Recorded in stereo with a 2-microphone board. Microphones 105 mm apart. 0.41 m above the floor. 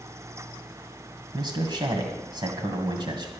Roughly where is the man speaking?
Right.